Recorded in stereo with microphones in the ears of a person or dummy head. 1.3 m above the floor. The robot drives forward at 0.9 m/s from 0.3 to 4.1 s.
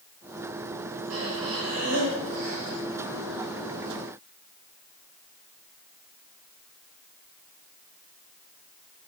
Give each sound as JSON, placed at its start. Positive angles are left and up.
{"t": 1.1, "sound": "breathing", "side_deg": -85, "distance_m": 7.0}